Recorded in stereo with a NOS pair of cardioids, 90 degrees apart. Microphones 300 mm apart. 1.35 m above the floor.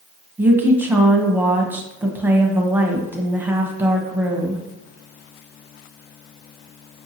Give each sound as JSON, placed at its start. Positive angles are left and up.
{"t": 0.4, "sound": "a woman speaking", "azimuth_deg": -5, "distance_m": 0.7}